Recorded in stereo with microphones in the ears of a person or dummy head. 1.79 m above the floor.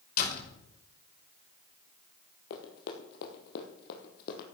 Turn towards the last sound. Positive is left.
turn(degrees=60)  # may be behind; listen again after turning